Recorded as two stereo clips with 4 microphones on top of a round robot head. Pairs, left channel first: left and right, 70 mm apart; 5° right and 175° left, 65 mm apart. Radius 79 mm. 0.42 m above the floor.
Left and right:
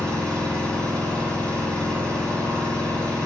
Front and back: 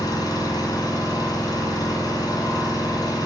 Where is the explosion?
No explosion in this recording.